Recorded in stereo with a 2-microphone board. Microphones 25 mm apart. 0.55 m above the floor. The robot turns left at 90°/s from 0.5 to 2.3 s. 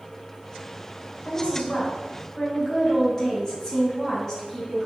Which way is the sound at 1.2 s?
110° left.